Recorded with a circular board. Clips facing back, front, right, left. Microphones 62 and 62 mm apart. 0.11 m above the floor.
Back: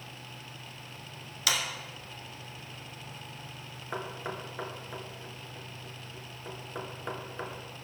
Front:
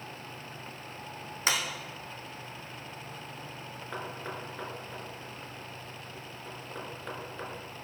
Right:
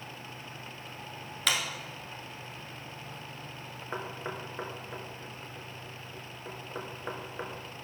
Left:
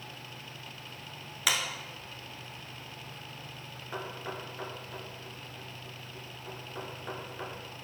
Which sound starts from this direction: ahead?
A clap, at 1.5 s.